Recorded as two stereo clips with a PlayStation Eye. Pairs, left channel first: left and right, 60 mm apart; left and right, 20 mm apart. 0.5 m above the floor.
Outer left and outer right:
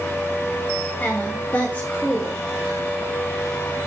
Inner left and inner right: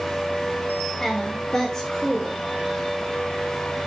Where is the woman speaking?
30° left (ahead or behind), 2.5 m.